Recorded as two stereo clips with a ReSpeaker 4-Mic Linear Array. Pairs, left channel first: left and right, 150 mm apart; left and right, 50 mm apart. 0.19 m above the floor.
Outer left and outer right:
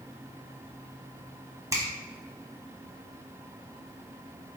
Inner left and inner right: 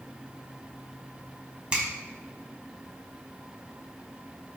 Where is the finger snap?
20° right (ahead or behind), 1.1 m.